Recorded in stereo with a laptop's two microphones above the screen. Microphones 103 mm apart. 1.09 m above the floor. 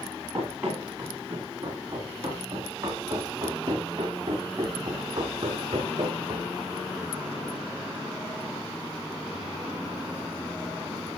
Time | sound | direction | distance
0.3 | running footsteps | 20° right (ahead or behind) | 6 m